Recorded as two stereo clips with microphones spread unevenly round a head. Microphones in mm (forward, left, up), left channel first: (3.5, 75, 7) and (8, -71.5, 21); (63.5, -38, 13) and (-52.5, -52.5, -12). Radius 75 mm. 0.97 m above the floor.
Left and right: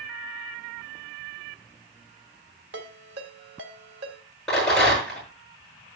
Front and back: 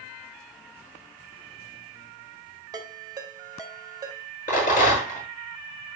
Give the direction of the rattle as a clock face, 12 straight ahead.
12 o'clock.